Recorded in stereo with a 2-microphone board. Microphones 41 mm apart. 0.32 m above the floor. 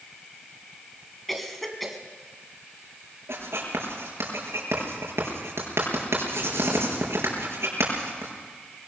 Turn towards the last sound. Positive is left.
turn(degrees=-80)